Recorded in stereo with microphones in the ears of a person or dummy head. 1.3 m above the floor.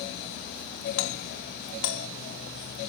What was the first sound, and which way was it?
A doorbell, 80° left.